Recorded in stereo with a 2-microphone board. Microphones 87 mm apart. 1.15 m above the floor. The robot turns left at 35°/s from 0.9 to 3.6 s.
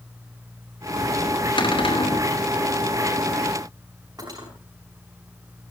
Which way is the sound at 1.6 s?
70° left (ahead or behind).